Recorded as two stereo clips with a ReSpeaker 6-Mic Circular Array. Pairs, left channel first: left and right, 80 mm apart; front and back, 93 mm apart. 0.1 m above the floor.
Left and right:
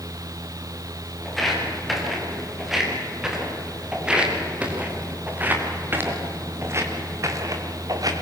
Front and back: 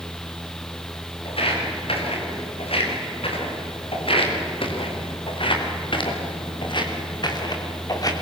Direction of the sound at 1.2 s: Straight ahead.